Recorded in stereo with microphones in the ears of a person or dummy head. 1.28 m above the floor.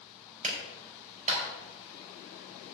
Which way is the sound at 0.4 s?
40° right (ahead or behind).